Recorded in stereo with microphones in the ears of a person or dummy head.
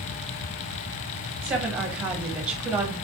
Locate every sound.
1.4 s a woman speaking: 5° right (ahead or behind), 1.2 m